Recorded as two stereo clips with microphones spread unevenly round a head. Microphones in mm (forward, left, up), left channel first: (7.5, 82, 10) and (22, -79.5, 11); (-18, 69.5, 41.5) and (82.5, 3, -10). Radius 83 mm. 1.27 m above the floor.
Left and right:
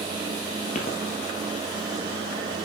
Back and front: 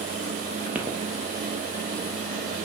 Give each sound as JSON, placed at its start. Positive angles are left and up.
{"t": 0.8, "sound": "footsteps", "azimuth_deg": 55, "distance_m": 2.0}